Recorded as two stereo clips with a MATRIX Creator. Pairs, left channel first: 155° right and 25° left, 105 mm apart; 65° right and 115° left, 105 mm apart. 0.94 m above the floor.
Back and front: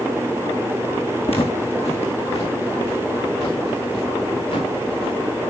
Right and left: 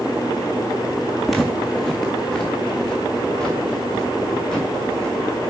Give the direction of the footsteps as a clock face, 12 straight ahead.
5 o'clock.